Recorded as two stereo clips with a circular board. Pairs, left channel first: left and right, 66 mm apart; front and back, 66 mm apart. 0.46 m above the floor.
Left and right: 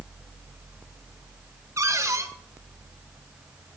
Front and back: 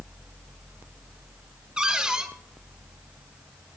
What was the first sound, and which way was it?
A cupboard door, 105° right.